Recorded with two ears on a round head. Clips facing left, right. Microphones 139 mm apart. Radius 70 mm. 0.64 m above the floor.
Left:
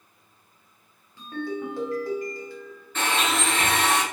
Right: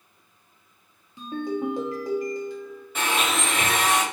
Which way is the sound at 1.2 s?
15° right (ahead or behind).